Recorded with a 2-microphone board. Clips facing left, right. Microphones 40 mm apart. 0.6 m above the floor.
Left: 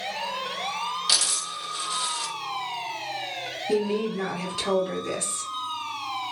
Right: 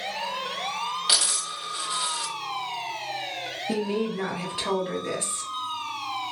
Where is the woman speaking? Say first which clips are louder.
Left 2 dB; 20° right (ahead or behind), 1.1 m.